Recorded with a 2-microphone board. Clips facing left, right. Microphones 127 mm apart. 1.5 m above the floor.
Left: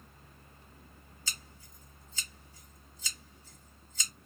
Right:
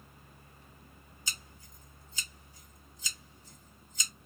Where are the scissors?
20° right (ahead or behind), 1.7 m.